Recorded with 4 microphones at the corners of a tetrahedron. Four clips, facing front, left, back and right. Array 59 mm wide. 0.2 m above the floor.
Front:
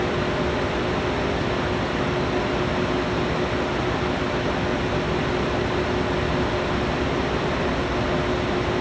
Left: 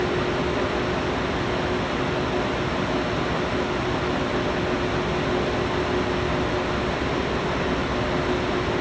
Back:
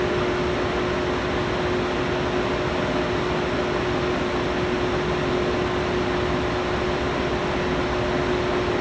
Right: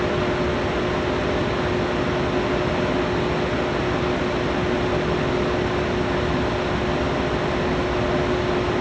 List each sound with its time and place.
Only background noise.